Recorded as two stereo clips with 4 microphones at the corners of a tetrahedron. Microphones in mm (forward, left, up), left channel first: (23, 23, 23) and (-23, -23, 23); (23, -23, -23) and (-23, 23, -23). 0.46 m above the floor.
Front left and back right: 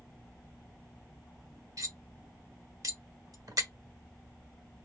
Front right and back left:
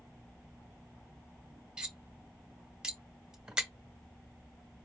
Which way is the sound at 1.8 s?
150° right.